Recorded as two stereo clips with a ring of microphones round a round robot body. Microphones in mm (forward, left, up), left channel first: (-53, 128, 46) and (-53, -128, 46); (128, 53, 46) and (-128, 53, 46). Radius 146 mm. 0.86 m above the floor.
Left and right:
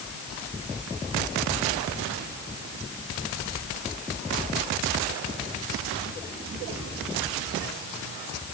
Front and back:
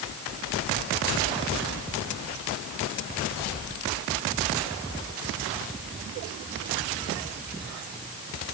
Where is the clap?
No clap in this recording.